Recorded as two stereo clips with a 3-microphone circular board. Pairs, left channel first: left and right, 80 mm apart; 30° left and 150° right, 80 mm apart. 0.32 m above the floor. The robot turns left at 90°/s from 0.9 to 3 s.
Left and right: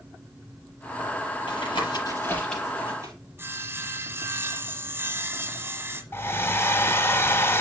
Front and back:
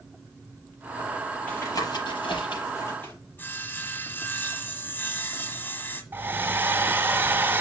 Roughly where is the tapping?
Left.